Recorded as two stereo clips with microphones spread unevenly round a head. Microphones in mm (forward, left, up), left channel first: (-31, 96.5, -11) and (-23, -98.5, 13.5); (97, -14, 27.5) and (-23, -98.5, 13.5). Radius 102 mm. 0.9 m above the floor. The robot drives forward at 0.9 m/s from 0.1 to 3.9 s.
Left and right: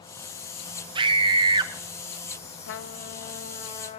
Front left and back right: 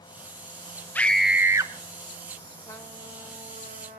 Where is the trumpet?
105° left, 0.6 m; by 4.0 s 155° left, 1.4 m.